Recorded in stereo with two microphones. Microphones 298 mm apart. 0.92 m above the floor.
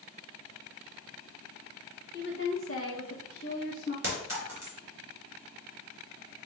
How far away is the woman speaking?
About 1.0 m.